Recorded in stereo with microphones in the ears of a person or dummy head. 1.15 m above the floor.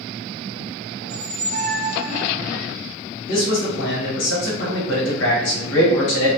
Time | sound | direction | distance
1.0 | a squeak | 50° right (ahead or behind) | 0.6 m
3.3 | a man speaking | 60° left (ahead or behind) | 1.0 m